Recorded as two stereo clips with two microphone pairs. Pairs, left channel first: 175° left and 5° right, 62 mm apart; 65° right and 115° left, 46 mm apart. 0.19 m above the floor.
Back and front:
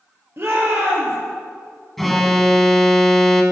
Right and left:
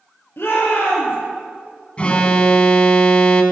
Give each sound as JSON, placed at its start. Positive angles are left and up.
{"t": 0.4, "sound": "a shout", "azimuth_deg": -50, "distance_m": 5.0}
{"t": 2.0, "sound": "an alarm", "azimuth_deg": -100, "distance_m": 1.4}